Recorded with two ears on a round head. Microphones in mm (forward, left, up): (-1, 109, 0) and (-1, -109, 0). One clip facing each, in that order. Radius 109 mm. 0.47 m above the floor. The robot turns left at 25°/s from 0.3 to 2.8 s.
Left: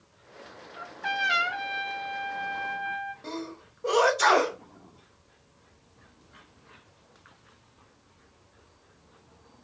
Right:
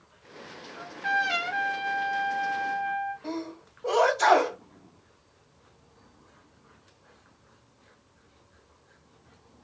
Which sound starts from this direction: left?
A sneeze, at 3.2 s.